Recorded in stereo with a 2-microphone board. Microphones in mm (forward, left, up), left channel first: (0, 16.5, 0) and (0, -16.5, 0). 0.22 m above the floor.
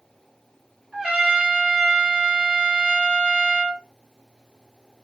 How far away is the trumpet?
About 1.9 m.